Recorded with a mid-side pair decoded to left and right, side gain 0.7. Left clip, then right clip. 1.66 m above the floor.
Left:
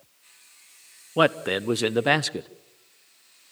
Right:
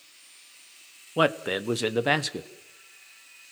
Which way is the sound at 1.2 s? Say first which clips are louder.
Left 3 dB; 10° left.